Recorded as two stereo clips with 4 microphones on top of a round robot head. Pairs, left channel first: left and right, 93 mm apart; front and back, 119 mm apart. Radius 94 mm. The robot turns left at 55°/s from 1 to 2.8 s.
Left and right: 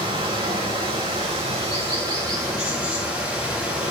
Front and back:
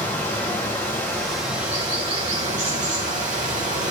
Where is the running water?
70° right, 2 m; by 3.9 s 170° right, 2 m.